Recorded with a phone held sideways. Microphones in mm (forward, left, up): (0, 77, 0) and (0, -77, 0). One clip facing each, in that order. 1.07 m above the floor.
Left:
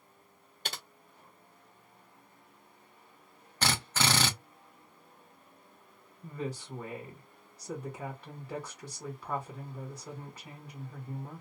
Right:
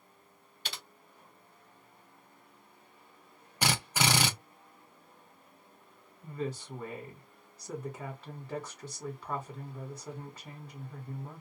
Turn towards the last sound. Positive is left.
turn(degrees=0)  # may be behind; listen again after turning